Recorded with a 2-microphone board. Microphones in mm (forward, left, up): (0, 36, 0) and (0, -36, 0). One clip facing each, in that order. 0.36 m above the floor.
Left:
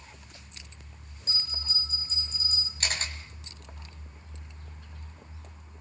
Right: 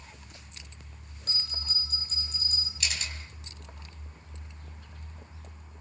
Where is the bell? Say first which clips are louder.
Left 1 dB; 55° right (ahead or behind), 4.5 m.